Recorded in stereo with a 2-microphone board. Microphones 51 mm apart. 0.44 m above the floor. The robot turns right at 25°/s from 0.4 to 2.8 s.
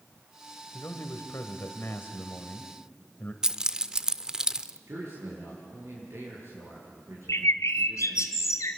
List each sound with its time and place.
0.7 s a man speaking: 95° left, 2.0 m; by 3.3 s 145° left, 2.0 m
3.4 s keys jangling: 15° right (ahead or behind), 0.6 m
4.9 s a man speaking: 60° right (ahead or behind), 8 m
7.3 s a bird: 85° left, 1.3 m